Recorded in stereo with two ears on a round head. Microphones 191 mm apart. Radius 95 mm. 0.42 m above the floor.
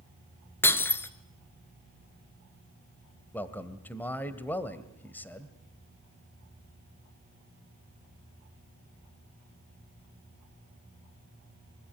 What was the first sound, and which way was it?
Breaking glass, 10° left (ahead or behind).